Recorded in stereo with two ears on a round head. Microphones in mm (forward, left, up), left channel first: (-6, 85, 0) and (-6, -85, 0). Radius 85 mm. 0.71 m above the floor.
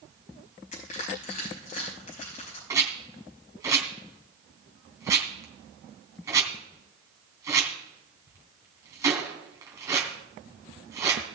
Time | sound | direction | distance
0.7 | crushing | 45° left (ahead or behind) | 5.5 m
2.7 | a rattle | 15° right (ahead or behind) | 3 m